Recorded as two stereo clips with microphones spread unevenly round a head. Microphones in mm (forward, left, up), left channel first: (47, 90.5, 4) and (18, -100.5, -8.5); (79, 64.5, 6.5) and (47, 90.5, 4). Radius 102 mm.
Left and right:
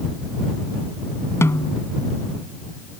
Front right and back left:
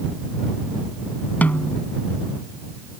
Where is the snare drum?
5° left.